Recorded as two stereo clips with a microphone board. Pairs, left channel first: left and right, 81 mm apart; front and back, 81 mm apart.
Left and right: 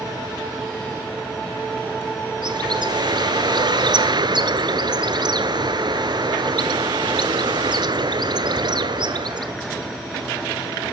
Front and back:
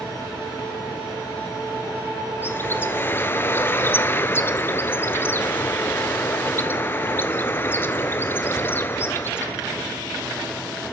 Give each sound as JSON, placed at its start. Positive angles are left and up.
{"t": 2.4, "sound": "a bird", "azimuth_deg": -65, "distance_m": 0.9}